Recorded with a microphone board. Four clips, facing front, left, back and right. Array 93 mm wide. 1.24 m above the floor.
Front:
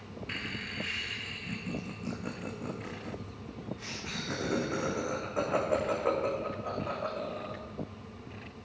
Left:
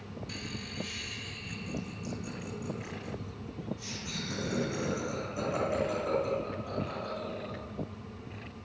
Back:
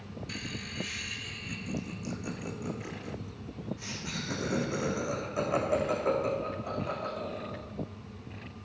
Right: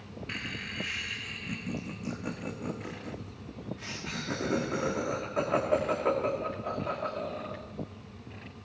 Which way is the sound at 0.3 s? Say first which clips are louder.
Right 7 dB, front 3 dB; 45° right.